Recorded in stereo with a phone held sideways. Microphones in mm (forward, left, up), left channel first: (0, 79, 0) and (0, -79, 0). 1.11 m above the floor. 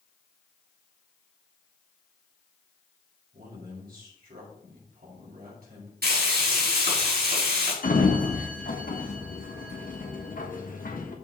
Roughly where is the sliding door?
Left.